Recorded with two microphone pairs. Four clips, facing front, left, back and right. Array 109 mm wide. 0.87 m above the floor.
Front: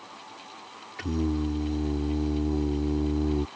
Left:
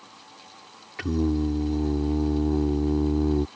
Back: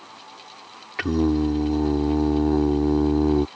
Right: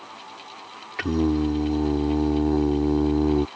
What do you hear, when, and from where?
1.0 s singing: 150° right